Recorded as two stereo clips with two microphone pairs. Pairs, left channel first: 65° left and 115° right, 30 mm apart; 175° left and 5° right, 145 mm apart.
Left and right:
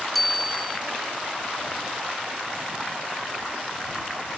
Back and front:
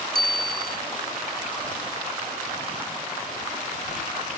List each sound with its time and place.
0.1 s a bicycle bell: 20° right